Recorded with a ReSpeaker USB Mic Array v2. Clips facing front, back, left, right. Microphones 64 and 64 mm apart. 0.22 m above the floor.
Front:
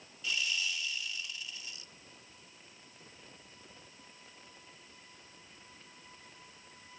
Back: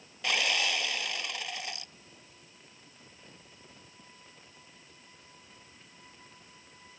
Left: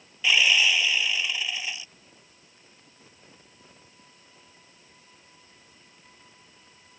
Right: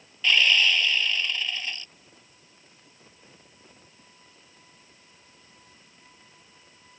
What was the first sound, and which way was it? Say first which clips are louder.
Sawing: back 7 dB, even; 170° left.